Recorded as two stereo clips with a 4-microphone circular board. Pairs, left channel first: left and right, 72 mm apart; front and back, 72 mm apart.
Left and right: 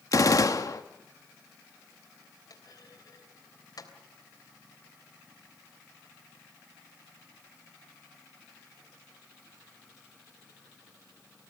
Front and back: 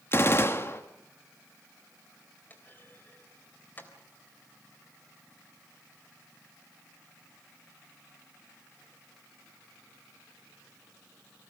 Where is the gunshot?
55° left, 1.4 m.